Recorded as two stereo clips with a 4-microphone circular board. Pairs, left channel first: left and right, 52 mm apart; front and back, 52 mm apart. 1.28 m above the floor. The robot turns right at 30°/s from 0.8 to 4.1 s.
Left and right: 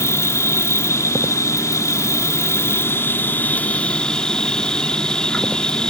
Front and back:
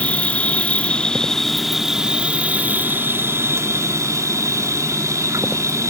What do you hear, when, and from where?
0.0 s an insect: 65° left; by 5.9 s 165° left